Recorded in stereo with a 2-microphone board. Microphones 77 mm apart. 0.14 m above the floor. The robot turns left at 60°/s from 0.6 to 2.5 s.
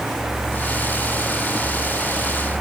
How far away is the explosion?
No explosion in this recording.